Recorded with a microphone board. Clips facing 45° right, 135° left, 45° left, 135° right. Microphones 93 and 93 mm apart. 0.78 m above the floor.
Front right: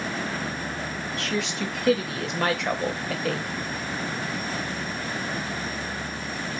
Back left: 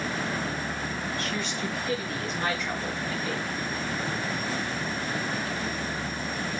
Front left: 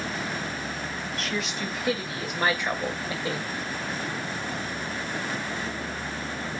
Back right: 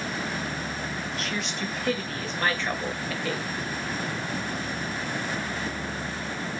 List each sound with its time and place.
1.2 s a woman speaking: 45° right, 3 m; by 3.5 s 20° right, 3 m